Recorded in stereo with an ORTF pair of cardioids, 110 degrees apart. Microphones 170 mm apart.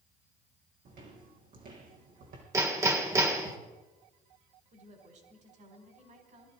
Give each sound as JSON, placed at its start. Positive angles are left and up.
{"t": 0.8, "sound": "footsteps", "azimuth_deg": -55, "distance_m": 3.5}
{"t": 2.5, "sound": "hammering", "azimuth_deg": -20, "distance_m": 2.0}
{"t": 4.7, "sound": "a woman speaking", "azimuth_deg": -45, "distance_m": 4.5}